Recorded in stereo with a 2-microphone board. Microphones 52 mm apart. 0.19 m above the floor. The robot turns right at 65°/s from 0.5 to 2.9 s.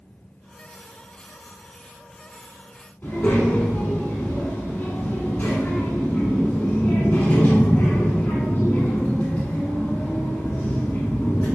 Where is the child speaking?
35° left (ahead or behind), 1.2 m.